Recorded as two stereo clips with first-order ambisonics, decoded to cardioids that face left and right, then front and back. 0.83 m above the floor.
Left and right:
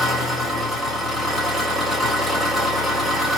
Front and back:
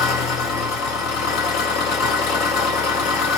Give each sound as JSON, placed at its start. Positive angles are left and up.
{"t": 0.0, "sound": "an engine running", "azimuth_deg": 0, "distance_m": 1.7}